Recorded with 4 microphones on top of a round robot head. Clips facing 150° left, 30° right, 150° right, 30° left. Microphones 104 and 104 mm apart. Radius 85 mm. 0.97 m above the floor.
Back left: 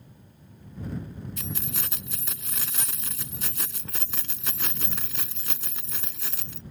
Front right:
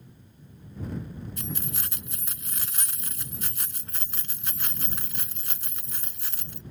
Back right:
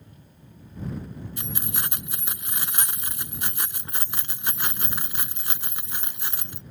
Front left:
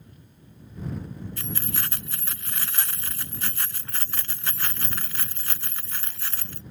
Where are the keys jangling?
135° left.